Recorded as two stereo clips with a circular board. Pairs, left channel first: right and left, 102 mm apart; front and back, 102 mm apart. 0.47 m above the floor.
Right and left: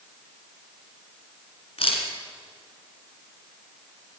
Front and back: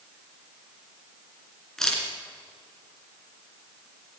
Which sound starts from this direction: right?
A camera shutter, at 1.8 s.